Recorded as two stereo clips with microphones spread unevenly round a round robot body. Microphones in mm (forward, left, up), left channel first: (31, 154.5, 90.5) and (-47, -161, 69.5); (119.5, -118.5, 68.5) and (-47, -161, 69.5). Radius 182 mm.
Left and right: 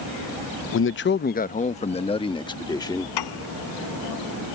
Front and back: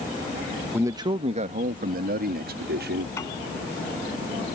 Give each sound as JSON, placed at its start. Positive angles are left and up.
{"t": 0.7, "sound": "a man speaking", "azimuth_deg": 115}
{"t": 3.2, "sound": "a piano", "azimuth_deg": 95}